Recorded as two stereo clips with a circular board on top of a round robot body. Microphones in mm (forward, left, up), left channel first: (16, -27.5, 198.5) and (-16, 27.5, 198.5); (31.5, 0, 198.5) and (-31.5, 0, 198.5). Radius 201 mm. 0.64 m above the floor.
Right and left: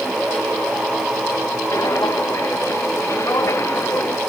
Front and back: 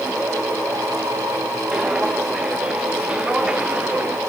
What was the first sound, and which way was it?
Footsteps, 100° right.